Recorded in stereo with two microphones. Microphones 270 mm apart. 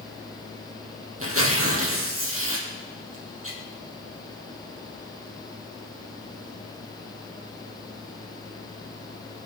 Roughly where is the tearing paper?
Right.